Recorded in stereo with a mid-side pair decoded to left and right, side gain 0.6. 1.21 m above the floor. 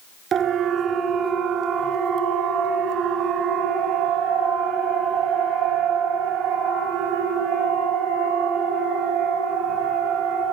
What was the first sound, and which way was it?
A siren, 50° right.